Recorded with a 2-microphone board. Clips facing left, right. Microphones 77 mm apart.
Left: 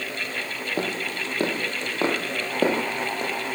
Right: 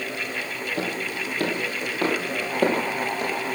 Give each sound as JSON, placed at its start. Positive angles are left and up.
{"t": 0.8, "sound": "footsteps", "side_deg": 35, "distance_m": 2.5}